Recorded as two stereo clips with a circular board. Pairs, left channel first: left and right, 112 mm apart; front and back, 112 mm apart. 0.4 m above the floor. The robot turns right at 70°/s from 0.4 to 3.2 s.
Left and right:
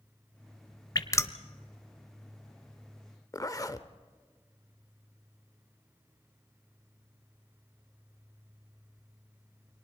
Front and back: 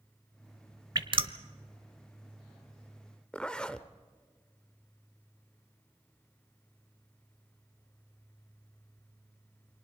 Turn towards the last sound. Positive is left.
turn(degrees=75)